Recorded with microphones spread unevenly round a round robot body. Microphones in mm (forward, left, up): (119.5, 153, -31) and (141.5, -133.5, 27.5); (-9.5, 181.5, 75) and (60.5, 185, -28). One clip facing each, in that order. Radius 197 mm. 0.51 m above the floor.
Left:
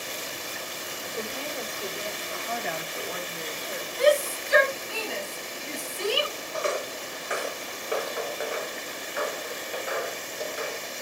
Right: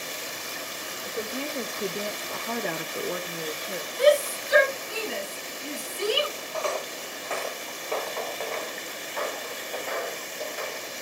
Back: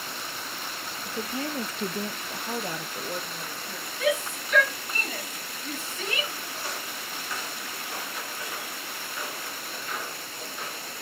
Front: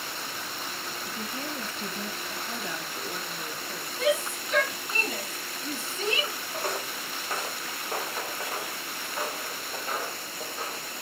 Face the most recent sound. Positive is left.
turn(degrees=10)